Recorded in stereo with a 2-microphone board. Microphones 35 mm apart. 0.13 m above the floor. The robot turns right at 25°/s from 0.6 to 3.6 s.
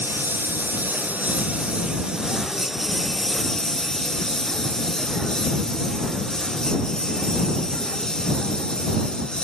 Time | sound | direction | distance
0.0 | a lawn mower | 60° right (ahead or behind) | ?